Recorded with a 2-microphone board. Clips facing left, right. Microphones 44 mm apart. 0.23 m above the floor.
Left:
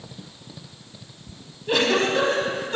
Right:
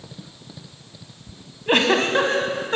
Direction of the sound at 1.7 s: 45° right (ahead or behind).